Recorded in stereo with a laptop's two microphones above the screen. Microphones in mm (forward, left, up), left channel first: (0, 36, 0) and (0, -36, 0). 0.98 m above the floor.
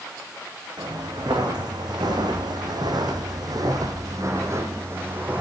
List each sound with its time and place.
0.8 s footsteps: 70° right (ahead or behind), 4.5 m; by 5.4 s 25° right (ahead or behind), 3 m